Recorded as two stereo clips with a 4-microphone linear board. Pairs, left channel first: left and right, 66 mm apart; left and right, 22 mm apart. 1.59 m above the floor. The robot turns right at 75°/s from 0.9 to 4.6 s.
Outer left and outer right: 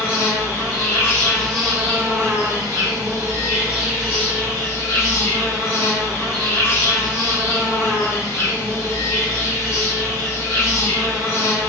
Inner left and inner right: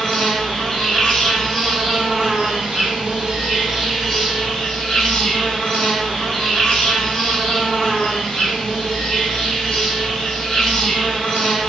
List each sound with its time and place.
0.0 s an insect: 130° left, 1.3 m; by 11.7 s 50° left, 1.3 m